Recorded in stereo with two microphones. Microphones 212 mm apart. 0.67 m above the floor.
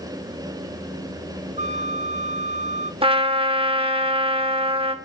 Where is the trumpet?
25° right (ahead or behind), 2.5 m.